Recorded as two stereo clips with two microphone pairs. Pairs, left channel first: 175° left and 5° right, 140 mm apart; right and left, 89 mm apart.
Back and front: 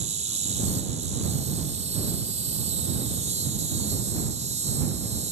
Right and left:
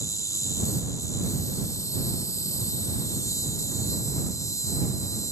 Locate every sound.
0.0 s an insect: 40° right